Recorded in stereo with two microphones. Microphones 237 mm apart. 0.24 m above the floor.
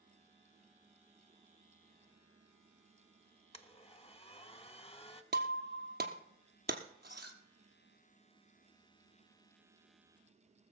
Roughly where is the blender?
Left.